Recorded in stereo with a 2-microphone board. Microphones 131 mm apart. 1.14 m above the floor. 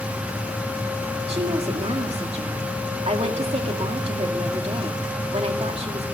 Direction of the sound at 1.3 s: 50° right (ahead or behind).